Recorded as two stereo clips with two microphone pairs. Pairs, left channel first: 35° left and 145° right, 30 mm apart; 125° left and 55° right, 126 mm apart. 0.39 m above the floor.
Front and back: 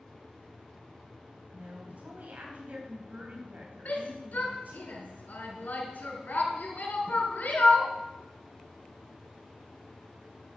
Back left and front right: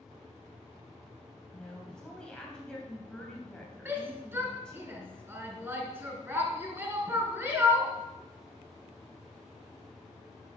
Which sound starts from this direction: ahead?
A shout, at 3.9 s.